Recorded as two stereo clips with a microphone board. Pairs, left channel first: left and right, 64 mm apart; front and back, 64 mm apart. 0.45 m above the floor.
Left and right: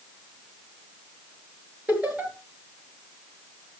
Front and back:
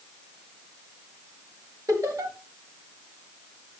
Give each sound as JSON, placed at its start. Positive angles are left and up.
{"t": 1.9, "sound": "laughter", "azimuth_deg": -160, "distance_m": 8.5}